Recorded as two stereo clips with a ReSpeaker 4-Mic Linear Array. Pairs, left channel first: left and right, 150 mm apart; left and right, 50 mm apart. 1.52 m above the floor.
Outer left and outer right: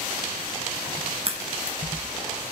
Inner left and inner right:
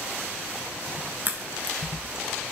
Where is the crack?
40° right (ahead or behind), 1.0 m.